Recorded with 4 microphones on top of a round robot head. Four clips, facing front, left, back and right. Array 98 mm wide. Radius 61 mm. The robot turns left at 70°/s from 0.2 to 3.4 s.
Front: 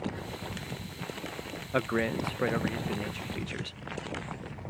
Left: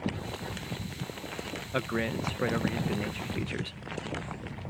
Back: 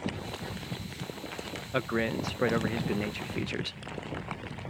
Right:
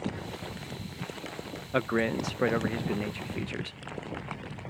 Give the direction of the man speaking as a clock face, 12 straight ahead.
2 o'clock.